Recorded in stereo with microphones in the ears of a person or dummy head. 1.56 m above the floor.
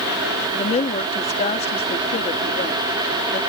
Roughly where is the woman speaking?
Left.